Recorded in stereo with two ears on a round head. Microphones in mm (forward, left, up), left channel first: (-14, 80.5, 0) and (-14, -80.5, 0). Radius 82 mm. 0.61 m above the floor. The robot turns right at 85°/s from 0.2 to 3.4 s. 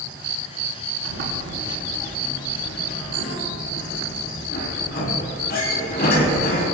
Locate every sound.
1.1 s a sliding door: 80° right, 4.5 m; by 6.7 s 60° left (ahead or behind), 4.5 m